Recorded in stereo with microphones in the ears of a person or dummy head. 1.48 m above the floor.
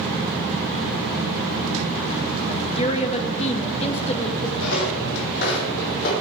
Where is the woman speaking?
25° left (ahead or behind), 1.6 m.